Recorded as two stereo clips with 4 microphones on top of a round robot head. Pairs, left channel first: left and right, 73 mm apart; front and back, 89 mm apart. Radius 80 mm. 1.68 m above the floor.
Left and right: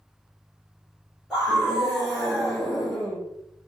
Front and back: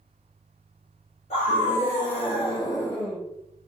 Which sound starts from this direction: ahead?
A scream, at 1.3 s.